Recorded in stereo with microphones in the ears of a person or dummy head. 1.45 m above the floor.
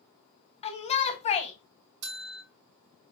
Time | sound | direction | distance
0.6 | a shout | 35° left (ahead or behind) | 0.6 m
2.0 | a bell | 55° right (ahead or behind) | 0.8 m